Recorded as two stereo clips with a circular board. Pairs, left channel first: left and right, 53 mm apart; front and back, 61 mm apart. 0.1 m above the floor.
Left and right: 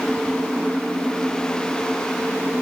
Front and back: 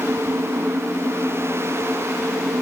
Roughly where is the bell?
I don't hear a bell.